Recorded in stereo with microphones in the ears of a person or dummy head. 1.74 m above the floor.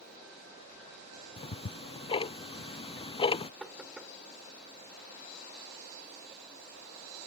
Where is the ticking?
25° left (ahead or behind).